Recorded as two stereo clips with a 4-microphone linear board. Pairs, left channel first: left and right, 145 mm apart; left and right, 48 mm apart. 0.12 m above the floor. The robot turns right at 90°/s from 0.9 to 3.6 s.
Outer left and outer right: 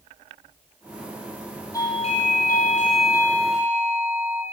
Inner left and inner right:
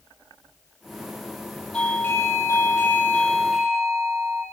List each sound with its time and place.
1.7 s a doorbell: 25° left, 5.5 m; by 4.4 s 170° right, 5.5 m